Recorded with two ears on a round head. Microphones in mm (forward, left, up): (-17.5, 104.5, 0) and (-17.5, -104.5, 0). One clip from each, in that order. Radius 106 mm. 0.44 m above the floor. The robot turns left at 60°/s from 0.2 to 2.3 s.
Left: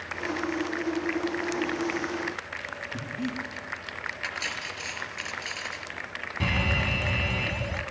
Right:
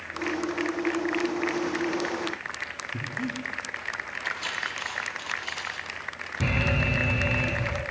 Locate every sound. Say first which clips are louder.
2.9 s breathing: right 2 dB; 15° left (ahead or behind), 5 m
4.2 s cutlery clinking: right 3 dB; 85° left, 5.5 m
6.4 s an alarm: right 1 dB; 70° left (ahead or behind), 3 m